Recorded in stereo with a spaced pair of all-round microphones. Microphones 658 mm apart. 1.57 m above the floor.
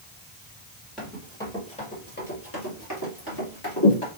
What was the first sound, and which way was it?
Running footsteps, centre (ahead or behind).